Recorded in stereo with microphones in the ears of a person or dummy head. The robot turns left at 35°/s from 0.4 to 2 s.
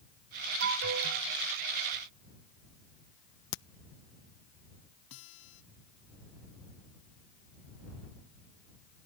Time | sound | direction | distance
0.6 | an alarm | 65° right (ahead or behind) | ?
3.5 | a crack | 60° left (ahead or behind) | ?
5.1 | a guitar | 75° left (ahead or behind) | ?